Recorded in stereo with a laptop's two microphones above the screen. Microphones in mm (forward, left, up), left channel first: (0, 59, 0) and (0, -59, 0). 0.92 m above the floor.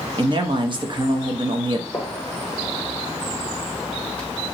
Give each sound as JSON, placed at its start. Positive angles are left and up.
{"t": 0.2, "sound": "a man speaking", "side_deg": -40, "distance_m": 0.7}
{"t": 1.9, "sound": "a gunshot", "side_deg": 15, "distance_m": 1.1}